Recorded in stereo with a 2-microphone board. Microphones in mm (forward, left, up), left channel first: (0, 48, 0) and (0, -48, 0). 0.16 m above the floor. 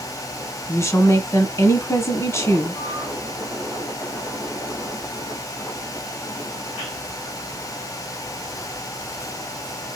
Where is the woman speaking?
30° left (ahead or behind), 1.4 m.